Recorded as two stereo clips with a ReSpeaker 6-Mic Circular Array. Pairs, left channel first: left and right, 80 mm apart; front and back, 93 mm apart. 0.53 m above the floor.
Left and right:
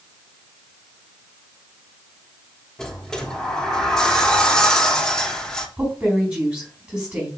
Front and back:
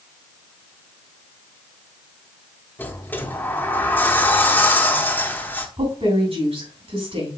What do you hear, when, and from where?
2.8 s a sliding door: 20° left, 1.0 m
5.8 s a woman speaking: 170° right, 3.5 m